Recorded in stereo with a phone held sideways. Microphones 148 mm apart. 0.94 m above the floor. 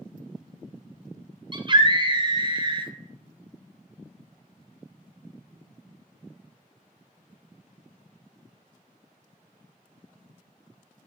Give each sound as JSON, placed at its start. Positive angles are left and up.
{"t": 1.5, "sound": "a scream", "side_deg": -30, "distance_m": 0.6}